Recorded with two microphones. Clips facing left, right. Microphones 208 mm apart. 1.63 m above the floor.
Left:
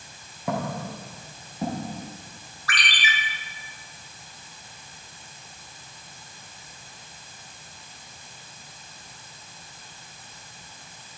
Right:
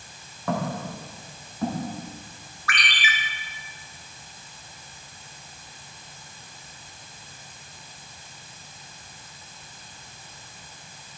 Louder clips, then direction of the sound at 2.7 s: Right 1 dB; 35° left (ahead or behind).